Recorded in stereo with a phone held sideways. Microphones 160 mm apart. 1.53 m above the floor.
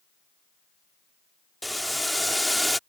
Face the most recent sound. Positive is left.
turn(degrees=0)  # may be behind; listen again after turning